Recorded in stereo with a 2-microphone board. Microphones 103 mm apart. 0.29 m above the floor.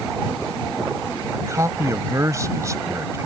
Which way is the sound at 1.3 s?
30° right (ahead or behind).